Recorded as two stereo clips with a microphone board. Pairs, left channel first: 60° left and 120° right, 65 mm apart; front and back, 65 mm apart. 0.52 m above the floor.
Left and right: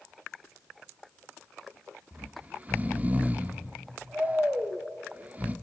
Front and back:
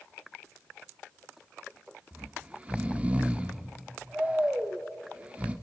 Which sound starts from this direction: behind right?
Snoring, at 2.1 s.